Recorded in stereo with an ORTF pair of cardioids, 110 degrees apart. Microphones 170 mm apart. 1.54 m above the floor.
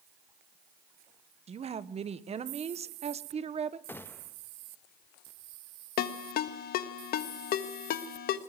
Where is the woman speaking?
40° right, 1.3 m.